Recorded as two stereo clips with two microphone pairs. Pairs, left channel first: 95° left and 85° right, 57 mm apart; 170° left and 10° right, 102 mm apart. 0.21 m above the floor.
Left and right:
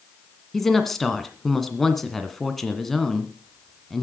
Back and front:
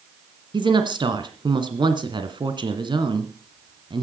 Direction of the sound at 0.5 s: 10° left.